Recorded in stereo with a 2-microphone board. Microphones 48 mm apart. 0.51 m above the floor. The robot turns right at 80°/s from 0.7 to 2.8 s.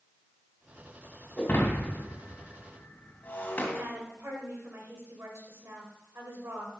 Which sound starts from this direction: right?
A woman speaking, at 3.8 s.